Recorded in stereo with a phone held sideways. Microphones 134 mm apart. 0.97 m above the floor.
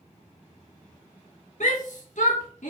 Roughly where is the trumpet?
I don't hear a trumpet.